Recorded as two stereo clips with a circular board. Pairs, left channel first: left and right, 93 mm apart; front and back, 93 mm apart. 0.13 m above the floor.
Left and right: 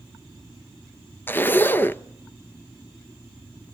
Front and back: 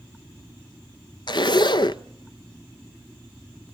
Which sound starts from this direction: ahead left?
A zipper, at 1.3 s.